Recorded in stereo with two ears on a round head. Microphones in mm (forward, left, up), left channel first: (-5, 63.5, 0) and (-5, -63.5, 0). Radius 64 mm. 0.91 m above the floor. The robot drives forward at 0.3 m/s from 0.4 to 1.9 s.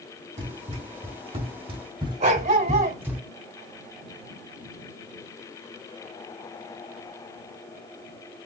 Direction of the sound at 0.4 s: 55° right (ahead or behind).